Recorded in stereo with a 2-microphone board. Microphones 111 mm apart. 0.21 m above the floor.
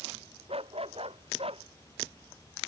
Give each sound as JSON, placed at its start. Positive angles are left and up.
{"t": 0.5, "sound": "a dog barking", "side_deg": -60}